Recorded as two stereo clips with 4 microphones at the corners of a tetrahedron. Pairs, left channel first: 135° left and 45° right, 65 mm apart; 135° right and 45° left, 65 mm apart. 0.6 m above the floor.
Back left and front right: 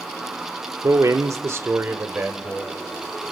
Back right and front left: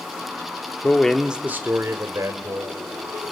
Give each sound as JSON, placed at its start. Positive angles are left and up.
{"t": 0.8, "sound": "a man speaking", "azimuth_deg": -70, "distance_m": 1.2}